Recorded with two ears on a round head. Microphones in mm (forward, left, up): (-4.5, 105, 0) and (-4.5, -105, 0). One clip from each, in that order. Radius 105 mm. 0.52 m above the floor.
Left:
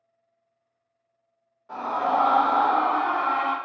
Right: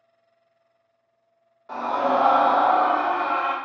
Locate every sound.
1.7 s a scream: 30° right (ahead or behind), 0.9 m; by 3.5 s 35° left (ahead or behind), 1.0 m